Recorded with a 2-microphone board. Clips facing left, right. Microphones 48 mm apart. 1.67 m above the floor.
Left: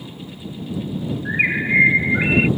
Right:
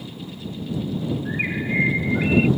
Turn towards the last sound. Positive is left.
turn(degrees=45)  # may be behind; listen again after turning